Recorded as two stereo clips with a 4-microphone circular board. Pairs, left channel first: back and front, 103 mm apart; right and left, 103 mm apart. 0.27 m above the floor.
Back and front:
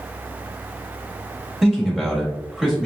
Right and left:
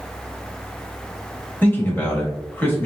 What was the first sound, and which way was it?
A man speaking, 75° right.